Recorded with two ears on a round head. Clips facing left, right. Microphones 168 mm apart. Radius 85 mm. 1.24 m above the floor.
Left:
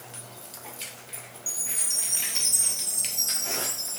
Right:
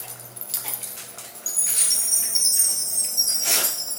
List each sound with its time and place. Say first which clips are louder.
1.5 s a chime: right 2 dB; 25° right (ahead or behind), 6.5 m